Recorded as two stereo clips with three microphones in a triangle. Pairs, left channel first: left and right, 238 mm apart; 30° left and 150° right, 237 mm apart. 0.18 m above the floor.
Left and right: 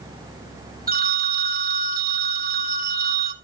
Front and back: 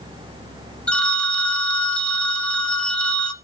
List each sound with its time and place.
0.9 s a phone ringing: 55° right, 1.4 m